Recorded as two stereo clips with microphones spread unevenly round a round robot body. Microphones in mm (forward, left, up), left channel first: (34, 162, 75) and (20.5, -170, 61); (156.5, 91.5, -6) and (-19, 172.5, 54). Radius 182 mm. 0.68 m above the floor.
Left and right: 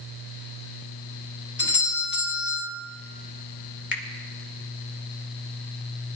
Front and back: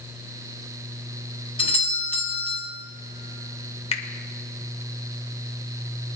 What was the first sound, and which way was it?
A doorbell, 30° left.